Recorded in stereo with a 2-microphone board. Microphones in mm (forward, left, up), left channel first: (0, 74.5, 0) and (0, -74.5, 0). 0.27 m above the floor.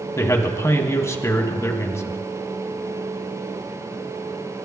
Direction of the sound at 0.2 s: 20° left (ahead or behind).